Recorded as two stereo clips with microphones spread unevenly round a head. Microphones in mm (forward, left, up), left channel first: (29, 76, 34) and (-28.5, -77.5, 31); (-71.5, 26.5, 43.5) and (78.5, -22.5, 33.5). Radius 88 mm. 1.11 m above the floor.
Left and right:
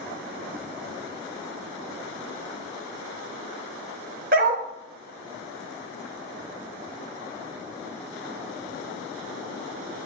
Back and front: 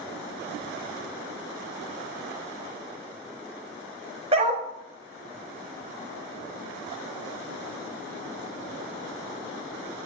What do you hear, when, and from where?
4.3 s a dog barking: 75° right, 0.7 m